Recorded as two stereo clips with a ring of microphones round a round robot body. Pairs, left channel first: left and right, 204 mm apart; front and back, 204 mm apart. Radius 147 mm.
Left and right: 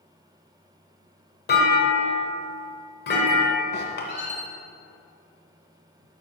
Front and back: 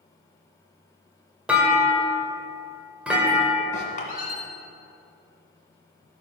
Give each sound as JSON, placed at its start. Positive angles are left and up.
{"t": 1.5, "sound": "a clunk", "azimuth_deg": 95, "distance_m": 1.9}
{"t": 3.7, "sound": "a squeak", "azimuth_deg": 55, "distance_m": 2.0}